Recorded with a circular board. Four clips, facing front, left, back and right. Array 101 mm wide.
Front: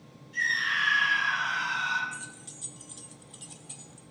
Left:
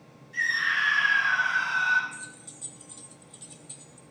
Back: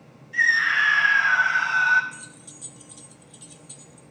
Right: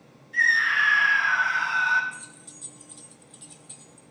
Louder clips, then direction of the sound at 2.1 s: Left 1 dB, front 1 dB; 5° right.